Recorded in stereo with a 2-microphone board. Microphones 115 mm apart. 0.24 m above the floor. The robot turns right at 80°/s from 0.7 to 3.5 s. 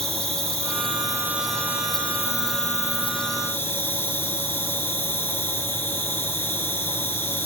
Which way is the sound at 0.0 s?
65° right.